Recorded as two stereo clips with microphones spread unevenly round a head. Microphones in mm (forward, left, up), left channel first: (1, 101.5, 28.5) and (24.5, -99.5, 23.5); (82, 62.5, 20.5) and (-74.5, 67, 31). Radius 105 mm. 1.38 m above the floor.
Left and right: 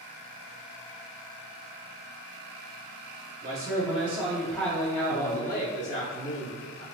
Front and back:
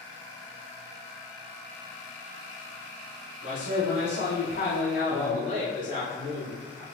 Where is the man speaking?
35° right, 1.2 m; by 6.8 s 75° left, 2 m.